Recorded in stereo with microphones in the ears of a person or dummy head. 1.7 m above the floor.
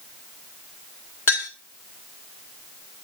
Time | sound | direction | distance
1.3 | a clink | 10° left (ahead or behind) | 1.0 m